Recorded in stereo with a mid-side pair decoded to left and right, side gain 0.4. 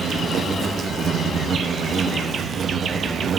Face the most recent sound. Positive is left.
turn(degrees=-60)